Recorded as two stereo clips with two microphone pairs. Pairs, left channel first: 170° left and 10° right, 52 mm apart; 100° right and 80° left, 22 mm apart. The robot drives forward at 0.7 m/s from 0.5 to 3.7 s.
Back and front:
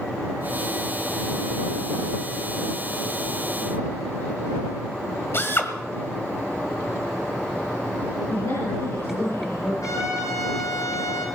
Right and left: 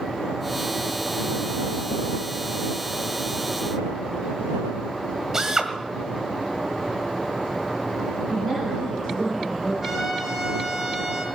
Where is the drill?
145° left, 1.7 m.